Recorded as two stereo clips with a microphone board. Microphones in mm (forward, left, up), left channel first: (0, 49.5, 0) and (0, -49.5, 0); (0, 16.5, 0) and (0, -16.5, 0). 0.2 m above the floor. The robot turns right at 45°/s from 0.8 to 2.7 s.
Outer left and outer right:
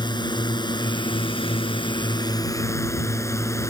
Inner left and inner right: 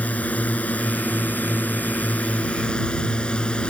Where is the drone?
60° left; by 3.7 s 145° left.